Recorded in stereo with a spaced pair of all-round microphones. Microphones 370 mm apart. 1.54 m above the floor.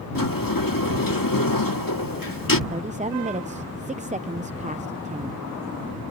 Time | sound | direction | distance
0.1 | a sliding door | 60° left (ahead or behind) | ?
2.7 | a woman speaking | 20° right (ahead or behind) | ?